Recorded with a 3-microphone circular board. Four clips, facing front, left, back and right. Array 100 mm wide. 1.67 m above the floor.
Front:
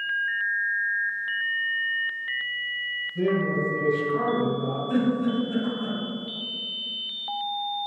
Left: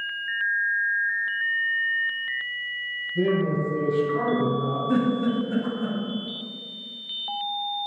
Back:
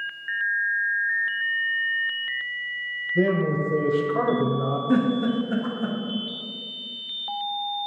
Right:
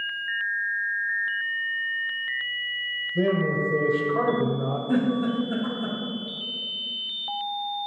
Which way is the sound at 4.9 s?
170° right.